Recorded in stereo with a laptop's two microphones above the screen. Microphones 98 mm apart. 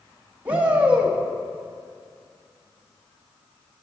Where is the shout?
15° right (ahead or behind), 1.4 m.